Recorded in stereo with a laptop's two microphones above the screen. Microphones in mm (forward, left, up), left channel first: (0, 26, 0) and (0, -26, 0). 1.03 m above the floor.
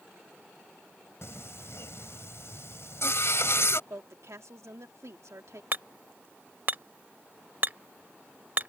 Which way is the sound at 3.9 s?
75° right (ahead or behind).